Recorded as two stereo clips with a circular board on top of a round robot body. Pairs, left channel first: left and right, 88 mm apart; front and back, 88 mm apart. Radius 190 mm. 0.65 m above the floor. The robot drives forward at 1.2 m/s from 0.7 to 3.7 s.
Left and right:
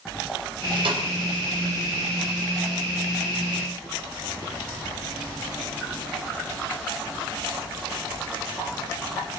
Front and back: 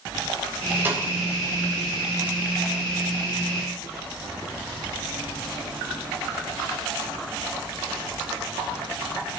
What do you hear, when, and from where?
0.8 s a snare drum: 110° right, 4 m; by 1.0 s 115° right, 4 m